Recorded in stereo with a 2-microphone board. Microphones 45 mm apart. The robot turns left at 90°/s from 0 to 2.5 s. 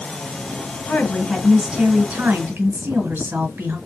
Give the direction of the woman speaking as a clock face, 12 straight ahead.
10 o'clock.